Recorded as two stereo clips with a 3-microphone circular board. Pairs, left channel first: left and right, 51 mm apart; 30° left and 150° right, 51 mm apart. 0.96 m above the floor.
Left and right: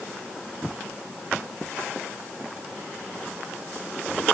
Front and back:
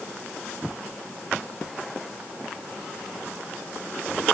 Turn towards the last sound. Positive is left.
No sound to turn to.